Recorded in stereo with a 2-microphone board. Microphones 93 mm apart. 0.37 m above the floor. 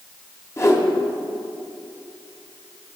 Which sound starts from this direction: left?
A whoosh, at 0.6 s.